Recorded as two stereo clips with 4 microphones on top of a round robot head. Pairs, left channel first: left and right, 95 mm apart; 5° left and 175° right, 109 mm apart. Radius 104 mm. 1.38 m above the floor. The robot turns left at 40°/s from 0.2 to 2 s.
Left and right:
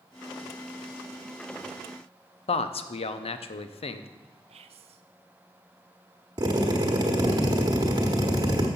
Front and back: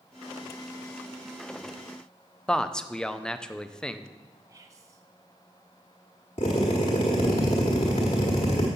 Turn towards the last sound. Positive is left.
turn(degrees=-50)